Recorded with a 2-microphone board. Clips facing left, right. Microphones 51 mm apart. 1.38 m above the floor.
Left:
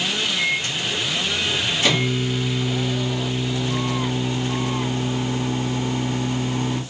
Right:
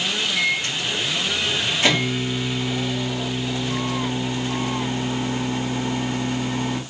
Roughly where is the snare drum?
No snare drum in this recording.